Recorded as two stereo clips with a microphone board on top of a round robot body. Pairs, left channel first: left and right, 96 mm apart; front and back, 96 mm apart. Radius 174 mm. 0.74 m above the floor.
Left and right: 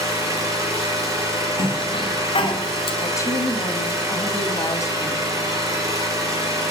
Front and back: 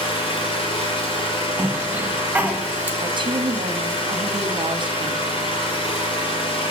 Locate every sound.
0.0 s an engine running: 35° right, 5 m
1.6 s a cough: 105° left, 2.5 m
3.0 s a woman speaking: 145° left, 1.6 m